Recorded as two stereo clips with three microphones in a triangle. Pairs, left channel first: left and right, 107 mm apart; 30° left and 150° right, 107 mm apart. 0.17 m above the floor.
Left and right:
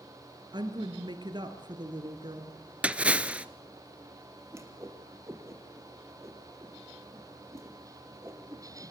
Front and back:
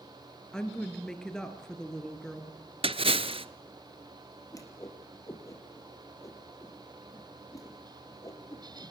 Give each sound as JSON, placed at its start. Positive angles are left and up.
{"t": 0.5, "sound": "a woman speaking", "azimuth_deg": -55, "distance_m": 3.0}
{"t": 2.8, "sound": "a splash", "azimuth_deg": -170, "distance_m": 0.9}
{"t": 4.5, "sound": "a whoosh", "azimuth_deg": -30, "distance_m": 3.5}